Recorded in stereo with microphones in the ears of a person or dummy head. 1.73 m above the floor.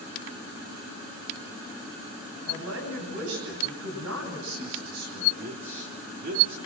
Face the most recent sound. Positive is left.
turn(degrees=-55)  # may be behind; listen again after turning